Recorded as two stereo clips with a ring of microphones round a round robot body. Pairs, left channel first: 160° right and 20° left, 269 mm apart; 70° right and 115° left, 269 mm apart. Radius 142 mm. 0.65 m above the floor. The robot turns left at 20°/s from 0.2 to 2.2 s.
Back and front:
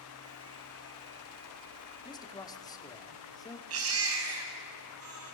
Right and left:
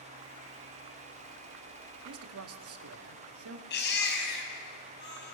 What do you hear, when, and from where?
2.0 s a man speaking: 130° left, 1.6 m
3.7 s a baby crying: 15° right, 3 m